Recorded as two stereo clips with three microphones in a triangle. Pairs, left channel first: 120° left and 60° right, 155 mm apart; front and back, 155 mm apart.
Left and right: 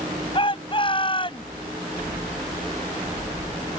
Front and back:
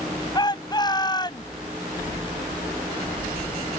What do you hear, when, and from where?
0.3 s a shout: 65° left